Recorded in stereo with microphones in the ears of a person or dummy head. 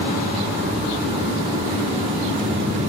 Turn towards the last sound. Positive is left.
turn(degrees=-35)  # may be behind; listen again after turning